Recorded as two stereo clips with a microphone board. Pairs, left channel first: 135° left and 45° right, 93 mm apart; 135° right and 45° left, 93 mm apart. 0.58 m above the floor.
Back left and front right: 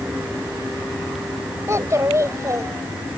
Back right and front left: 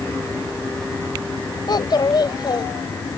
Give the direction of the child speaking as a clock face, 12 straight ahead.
3 o'clock.